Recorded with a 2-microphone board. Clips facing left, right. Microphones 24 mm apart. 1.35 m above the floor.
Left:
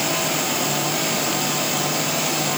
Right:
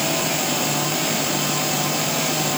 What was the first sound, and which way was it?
Only background noise.